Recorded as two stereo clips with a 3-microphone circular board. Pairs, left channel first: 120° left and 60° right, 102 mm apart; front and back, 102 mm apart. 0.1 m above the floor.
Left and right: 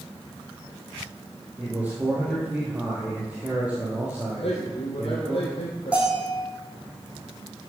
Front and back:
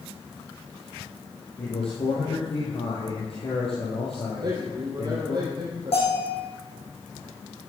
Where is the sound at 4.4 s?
135° left, 3.5 m.